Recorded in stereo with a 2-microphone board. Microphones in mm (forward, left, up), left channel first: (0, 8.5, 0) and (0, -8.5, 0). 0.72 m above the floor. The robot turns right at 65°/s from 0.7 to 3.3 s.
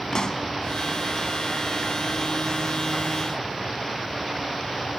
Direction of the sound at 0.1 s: 45° left (ahead or behind).